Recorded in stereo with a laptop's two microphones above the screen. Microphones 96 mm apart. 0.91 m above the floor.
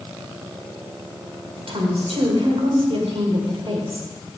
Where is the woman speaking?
80° right, 3 m.